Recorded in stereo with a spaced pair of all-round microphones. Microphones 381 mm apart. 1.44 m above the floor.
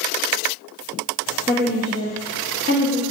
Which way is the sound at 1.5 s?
35° right (ahead or behind).